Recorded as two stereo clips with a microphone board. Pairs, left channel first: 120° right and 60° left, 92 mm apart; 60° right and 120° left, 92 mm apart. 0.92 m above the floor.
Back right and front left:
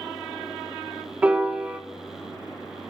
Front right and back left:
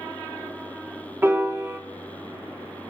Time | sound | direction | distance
1.2 | a piano | 110° left | 0.8 m